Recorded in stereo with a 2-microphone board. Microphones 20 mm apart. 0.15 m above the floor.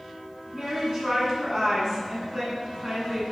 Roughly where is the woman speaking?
Right.